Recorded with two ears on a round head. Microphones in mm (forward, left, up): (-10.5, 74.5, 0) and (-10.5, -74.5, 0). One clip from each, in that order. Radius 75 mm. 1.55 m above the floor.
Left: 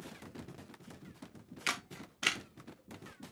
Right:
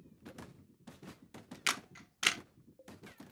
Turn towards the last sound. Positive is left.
turn(degrees=-25)  # may be behind; listen again after turning